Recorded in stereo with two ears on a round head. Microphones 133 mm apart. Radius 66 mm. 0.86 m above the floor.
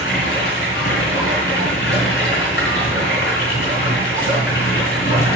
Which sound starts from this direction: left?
Running water, at 0.0 s.